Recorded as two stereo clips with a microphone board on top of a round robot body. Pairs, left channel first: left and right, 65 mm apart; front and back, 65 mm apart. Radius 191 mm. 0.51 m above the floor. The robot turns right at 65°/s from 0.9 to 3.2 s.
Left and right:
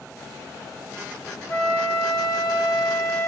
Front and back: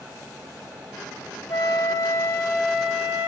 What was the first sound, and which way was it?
A flute, 15° left.